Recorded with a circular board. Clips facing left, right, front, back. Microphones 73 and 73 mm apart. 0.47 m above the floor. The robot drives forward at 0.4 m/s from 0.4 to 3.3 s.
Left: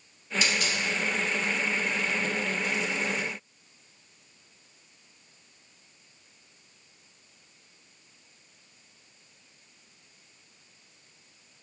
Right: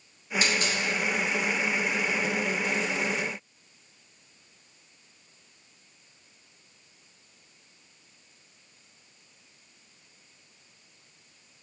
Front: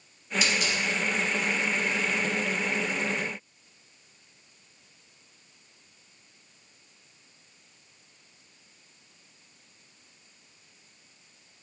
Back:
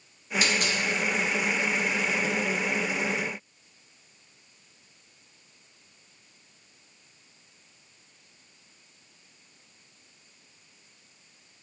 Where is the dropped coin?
135° right, 0.7 m; by 0.8 s 145° right, 0.8 m.